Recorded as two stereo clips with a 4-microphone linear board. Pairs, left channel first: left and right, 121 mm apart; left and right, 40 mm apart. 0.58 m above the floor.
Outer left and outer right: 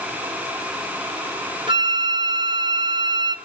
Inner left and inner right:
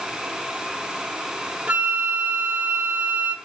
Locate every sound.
1.7 s a flute: 40° right (ahead or behind), 0.8 m